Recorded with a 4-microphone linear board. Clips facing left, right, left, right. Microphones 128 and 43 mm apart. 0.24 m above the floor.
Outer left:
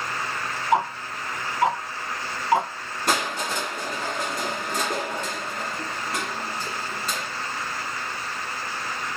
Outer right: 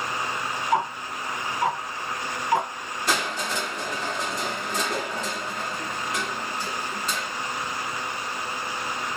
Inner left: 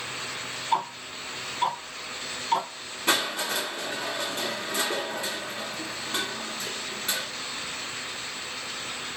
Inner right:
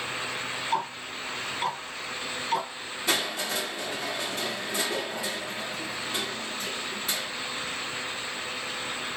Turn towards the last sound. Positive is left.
turn(degrees=55)  # may be behind; listen again after turning